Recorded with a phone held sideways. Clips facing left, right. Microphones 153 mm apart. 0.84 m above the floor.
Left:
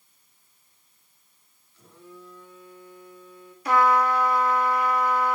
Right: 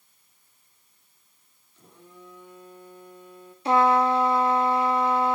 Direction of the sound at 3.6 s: 25° right (ahead or behind).